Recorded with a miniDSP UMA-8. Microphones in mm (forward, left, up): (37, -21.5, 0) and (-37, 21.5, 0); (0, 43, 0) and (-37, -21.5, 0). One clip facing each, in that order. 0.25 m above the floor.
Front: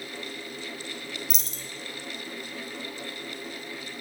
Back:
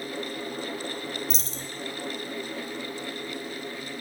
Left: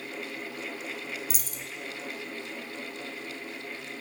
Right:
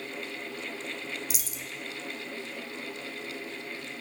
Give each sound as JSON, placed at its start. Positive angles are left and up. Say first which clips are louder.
{"t": 1.3, "sound": "a dropped coin", "louder": "back 5 dB, even", "azimuth_deg": 100, "distance_m": 0.6}